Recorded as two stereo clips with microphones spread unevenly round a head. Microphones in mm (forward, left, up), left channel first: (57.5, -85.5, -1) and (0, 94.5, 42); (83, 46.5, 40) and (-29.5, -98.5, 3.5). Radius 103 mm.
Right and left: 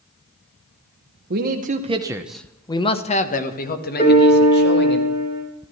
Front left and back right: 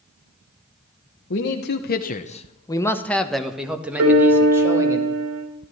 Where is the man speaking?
80° left, 1.2 m; by 5.0 s 55° right, 3 m.